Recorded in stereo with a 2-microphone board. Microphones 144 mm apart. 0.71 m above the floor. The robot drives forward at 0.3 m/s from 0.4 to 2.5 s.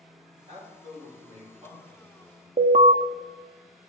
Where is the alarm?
55° right (ahead or behind), 0.5 m.